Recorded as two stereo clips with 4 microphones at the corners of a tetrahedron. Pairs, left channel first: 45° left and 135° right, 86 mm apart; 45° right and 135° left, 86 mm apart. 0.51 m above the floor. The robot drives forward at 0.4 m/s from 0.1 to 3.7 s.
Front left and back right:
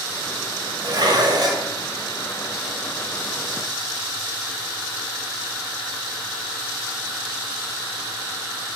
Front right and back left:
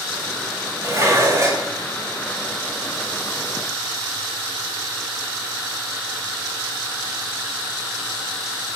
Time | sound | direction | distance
0.8 | dishes clattering | 170° right | 1.7 m